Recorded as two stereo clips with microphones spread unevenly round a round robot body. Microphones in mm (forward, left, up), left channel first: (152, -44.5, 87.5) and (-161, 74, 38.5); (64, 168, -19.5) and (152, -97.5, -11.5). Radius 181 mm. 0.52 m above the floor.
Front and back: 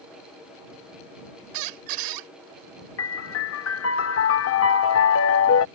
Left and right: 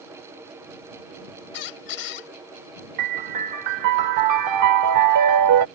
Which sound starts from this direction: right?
A piano, at 3.0 s.